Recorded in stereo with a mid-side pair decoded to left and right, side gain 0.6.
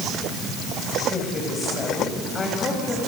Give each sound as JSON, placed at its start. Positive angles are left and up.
{"t": 1.1, "sound": "a woman speaking", "azimuth_deg": 25, "distance_m": 7.5}